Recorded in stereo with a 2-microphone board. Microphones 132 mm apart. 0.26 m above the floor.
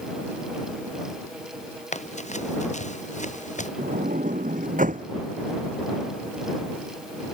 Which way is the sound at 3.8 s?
75° right (ahead or behind).